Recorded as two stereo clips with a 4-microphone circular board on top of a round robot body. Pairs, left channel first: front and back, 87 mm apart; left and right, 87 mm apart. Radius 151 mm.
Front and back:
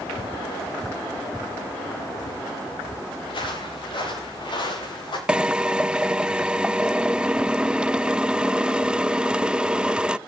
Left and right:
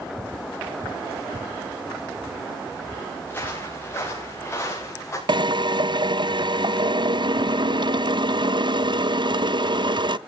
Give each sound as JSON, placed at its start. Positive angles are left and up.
{"t": 3.3, "sound": "footsteps", "azimuth_deg": 20, "distance_m": 9.0}
{"t": 5.3, "sound": "a drill", "azimuth_deg": -100, "distance_m": 0.7}